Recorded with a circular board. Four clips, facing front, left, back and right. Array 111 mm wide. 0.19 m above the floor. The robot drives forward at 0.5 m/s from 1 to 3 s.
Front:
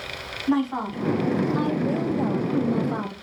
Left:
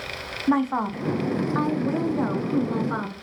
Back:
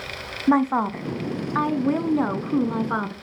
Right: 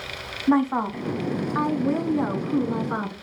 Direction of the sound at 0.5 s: Straight behind.